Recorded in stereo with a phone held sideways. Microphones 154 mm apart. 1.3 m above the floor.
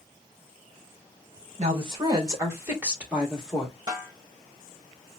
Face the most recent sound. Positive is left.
turn(degrees=-25)  # may be behind; listen again after turning